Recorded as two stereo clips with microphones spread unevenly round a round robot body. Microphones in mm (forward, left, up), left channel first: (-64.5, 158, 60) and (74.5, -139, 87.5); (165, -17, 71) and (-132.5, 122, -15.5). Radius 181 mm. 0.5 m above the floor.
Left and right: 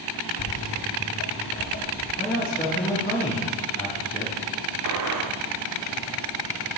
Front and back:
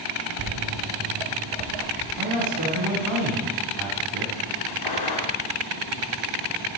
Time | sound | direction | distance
0.4 | footsteps | 155° left | 0.5 m
2.2 | a man speaking | 175° left | 4.5 m
4.8 | a gunshot | 45° right | 1.5 m